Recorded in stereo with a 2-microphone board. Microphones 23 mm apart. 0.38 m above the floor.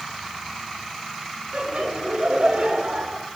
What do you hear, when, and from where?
1.5 s laughter: 55° right (ahead or behind), 6 m